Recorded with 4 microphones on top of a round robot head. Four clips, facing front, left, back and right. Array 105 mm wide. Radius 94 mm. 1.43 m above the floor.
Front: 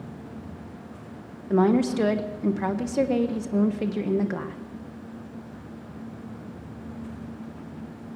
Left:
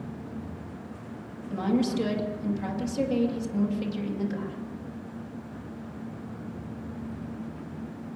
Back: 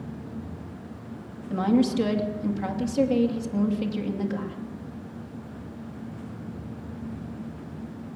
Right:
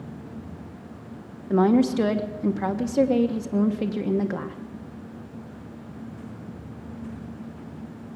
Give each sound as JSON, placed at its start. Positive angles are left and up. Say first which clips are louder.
{"t": 1.5, "sound": "a woman speaking", "louder": "right 7 dB, front 2 dB", "azimuth_deg": -50, "distance_m": 1.4}